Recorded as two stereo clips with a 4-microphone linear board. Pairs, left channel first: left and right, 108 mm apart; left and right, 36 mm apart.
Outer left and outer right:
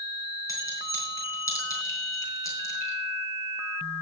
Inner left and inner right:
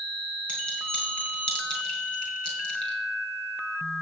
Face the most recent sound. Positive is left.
turn(degrees=30)  # may be behind; listen again after turning